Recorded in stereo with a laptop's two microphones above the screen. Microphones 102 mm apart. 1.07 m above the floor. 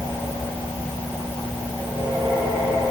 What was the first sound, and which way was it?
Only background noise.